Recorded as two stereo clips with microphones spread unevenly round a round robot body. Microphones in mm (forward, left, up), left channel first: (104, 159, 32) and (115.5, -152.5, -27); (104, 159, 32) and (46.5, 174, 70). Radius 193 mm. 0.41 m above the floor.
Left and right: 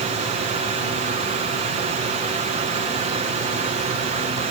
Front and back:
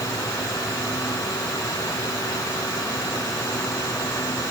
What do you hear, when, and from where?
Only background noise.